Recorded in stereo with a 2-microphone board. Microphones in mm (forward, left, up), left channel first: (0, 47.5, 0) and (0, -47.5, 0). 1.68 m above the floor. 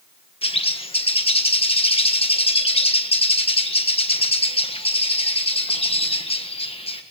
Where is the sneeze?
No sneeze in this recording.